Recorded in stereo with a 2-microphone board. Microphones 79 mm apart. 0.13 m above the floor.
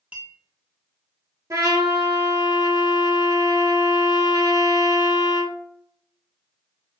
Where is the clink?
15° right (ahead or behind), 0.7 m.